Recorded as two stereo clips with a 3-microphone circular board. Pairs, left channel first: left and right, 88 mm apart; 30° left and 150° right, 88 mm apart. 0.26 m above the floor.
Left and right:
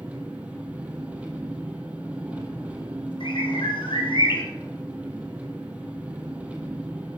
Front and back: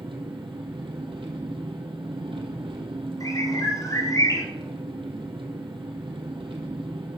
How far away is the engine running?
About 2.5 m.